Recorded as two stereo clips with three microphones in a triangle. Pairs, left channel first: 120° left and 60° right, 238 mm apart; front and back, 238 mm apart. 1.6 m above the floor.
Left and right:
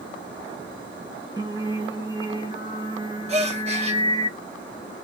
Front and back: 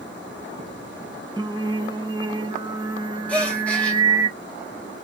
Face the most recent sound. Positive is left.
turn(degrees=-80)